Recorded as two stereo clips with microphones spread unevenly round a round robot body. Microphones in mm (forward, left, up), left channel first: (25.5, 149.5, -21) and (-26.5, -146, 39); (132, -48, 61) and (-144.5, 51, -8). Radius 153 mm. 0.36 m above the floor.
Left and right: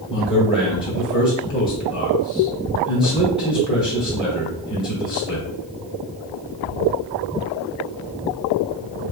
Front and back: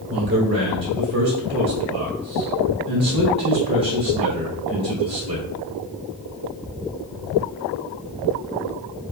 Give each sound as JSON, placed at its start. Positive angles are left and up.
{"t": 0.1, "sound": "a man speaking", "azimuth_deg": 125, "distance_m": 1.4}